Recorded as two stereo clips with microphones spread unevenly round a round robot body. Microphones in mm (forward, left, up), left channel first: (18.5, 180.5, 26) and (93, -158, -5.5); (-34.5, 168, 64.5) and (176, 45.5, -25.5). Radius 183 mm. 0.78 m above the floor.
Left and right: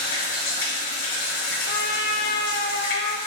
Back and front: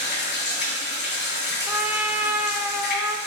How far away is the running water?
About 1.9 m.